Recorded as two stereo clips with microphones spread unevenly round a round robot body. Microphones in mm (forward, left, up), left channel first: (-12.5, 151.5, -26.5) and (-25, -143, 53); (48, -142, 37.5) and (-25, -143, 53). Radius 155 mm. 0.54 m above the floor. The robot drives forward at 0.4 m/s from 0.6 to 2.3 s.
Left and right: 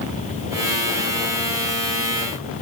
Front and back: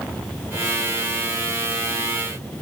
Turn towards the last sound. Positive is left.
No sound to turn to.